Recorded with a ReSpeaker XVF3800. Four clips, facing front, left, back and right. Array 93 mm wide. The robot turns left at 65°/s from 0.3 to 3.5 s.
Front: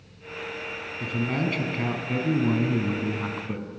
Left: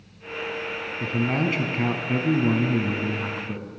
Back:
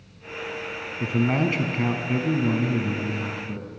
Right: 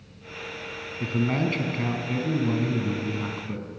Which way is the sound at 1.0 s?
175° left.